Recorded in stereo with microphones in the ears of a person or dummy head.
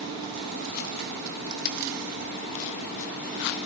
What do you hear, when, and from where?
1.6 s a dropped coin: 55° left (ahead or behind), 2.0 m